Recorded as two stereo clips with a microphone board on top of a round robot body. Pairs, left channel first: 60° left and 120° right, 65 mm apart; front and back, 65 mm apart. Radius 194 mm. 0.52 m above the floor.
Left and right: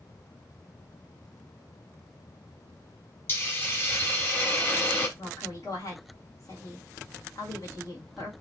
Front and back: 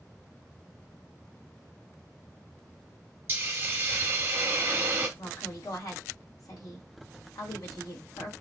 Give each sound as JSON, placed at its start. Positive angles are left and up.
{"t": 3.3, "sound": "a hiss", "azimuth_deg": 120, "distance_m": 1.0}
{"t": 5.2, "sound": "a woman speaking", "azimuth_deg": 30, "distance_m": 3.0}